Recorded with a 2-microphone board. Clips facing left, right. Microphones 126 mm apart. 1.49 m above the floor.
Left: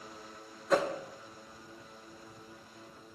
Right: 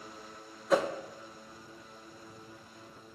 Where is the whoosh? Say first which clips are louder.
Right 1 dB; 5° right (ahead or behind), 0.6 m.